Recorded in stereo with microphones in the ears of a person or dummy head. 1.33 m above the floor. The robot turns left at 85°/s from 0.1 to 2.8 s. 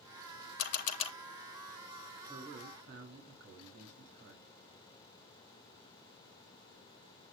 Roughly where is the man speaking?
Ahead.